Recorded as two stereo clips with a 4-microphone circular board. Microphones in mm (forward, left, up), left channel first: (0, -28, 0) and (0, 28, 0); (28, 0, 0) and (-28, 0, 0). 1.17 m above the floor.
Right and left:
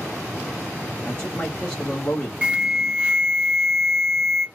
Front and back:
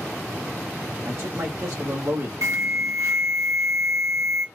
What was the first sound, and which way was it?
A man speaking, 140° right.